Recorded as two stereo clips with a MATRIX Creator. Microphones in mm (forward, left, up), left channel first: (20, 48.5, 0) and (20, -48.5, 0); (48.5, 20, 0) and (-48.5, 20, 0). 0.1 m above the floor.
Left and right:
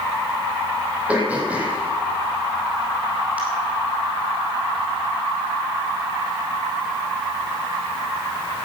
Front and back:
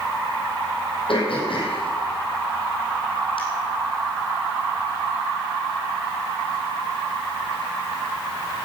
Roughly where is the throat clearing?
Ahead.